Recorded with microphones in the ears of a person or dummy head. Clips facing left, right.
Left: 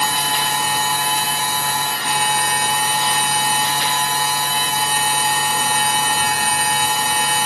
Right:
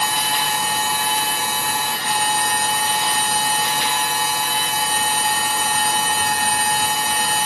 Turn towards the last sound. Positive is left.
turn(degrees=60)  # may be behind; listen again after turning